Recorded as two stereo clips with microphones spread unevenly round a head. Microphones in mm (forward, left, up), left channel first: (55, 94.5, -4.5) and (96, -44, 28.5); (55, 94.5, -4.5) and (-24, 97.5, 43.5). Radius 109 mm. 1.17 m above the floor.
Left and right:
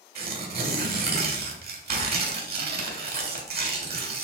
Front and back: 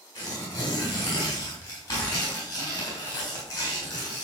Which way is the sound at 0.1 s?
65° right.